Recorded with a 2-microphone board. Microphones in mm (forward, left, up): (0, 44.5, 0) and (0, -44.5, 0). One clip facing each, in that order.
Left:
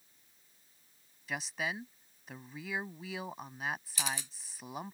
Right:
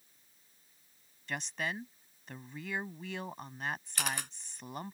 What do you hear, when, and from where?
1.3 s a woman speaking: 5° left (ahead or behind)
4.0 s a camera shutter: 60° right (ahead or behind)